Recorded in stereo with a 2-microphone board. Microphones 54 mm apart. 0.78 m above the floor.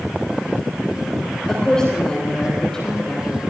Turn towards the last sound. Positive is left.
turn(degrees=15)  # may be behind; listen again after turning